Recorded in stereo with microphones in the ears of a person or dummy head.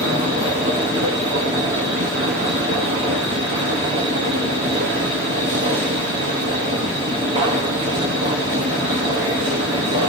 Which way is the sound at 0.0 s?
20° right (ahead or behind).